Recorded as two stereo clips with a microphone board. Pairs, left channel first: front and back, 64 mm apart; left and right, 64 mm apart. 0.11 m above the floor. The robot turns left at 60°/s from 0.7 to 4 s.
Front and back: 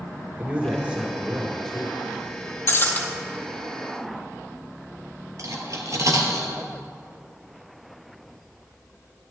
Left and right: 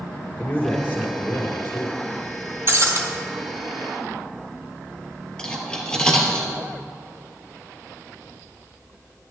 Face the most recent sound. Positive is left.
turn(degrees=165)